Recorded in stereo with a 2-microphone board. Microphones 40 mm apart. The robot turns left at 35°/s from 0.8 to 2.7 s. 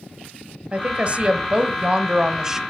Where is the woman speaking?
95° right, 1.2 m; by 2.6 s 155° right, 1.2 m.